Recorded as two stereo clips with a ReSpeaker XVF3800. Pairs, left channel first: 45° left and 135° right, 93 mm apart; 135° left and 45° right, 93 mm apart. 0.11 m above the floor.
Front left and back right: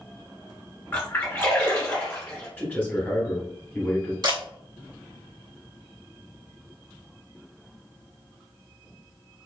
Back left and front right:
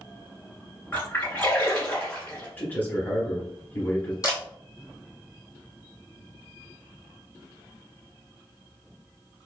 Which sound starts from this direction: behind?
A camera shutter, at 4.2 s.